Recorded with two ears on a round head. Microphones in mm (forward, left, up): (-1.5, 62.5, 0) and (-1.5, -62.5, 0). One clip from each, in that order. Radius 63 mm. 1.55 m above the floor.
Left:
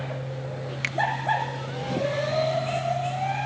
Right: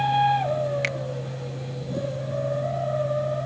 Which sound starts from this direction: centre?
A finger snap, at 0.8 s.